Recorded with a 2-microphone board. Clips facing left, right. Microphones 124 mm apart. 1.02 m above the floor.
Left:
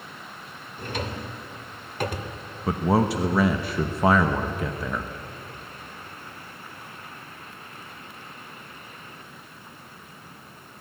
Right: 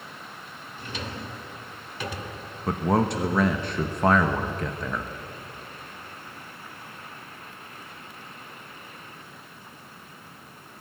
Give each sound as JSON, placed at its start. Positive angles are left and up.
{"t": 0.8, "sound": "a drawer", "side_deg": 50, "distance_m": 1.8}
{"t": 2.7, "sound": "a man speaking", "side_deg": 5, "distance_m": 1.0}